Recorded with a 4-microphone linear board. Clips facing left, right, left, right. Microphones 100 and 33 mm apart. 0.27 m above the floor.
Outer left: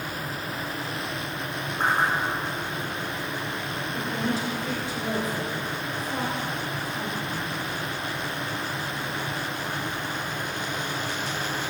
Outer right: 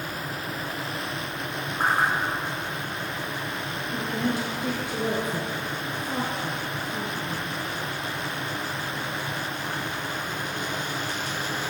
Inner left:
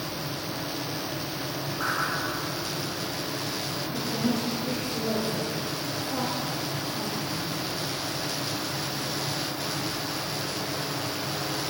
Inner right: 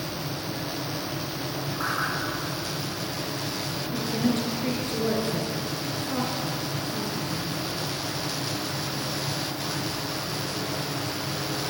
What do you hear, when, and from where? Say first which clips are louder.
1.8 s a whoosh: even, even; 10° right (ahead or behind), 5.5 m
3.9 s a woman speaking: outer right 1 dB, inner right 3 dB; 65° right (ahead or behind), 4 m